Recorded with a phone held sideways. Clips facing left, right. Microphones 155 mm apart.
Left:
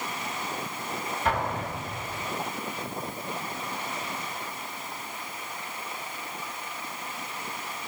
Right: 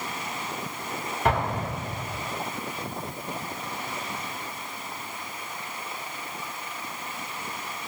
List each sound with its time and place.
1.2 s an explosion: 65° right (ahead or behind), 0.7 m